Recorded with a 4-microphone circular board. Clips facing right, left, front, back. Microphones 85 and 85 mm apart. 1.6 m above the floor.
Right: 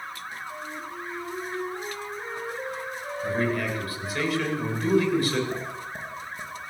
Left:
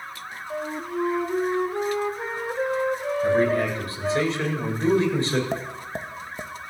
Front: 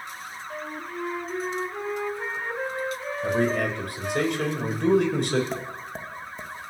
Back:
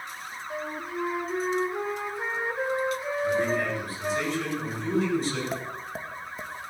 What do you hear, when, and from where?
0.5 s a flute: 100° left, 2.5 m
3.2 s a man speaking: 30° left, 8.5 m
5.5 s tapping: 95° left, 2.5 m